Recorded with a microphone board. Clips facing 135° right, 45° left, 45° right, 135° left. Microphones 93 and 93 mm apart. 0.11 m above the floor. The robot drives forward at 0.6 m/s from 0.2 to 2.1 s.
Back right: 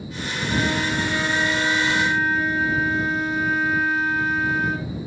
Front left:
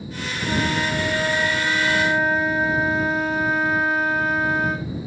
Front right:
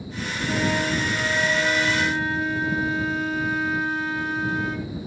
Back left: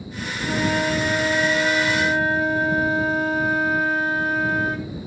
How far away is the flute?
About 8.5 m.